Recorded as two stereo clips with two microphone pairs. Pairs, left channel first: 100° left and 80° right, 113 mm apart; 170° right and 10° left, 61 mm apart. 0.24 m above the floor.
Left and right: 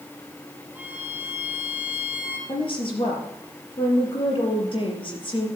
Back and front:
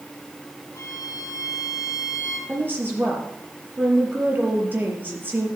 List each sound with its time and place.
0.8 s a violin: 155° right, 3.5 m
2.5 s a woman speaking: 65° left, 5.5 m